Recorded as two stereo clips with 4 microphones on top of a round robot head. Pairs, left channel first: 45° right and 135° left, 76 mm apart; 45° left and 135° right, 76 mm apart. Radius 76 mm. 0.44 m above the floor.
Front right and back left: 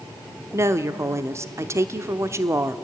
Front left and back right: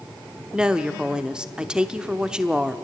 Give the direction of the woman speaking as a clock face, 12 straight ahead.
7 o'clock.